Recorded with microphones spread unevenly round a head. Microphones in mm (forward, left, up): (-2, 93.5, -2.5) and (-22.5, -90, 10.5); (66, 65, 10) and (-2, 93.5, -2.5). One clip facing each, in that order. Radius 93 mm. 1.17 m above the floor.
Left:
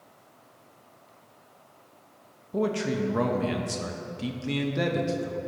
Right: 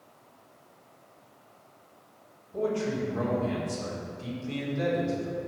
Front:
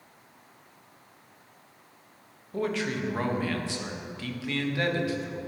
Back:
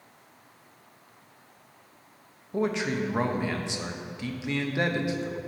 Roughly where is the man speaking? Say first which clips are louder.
Left 2 dB, back 2 dB; left.